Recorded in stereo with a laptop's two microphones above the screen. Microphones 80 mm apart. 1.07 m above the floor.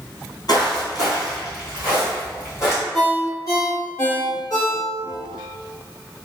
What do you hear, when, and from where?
0.5 s footsteps: 50° left (ahead or behind), 1.7 m; by 2.8 s 30° left (ahead or behind), 2.5 m
2.9 s a ringtone: 45° left (ahead or behind), 1.2 m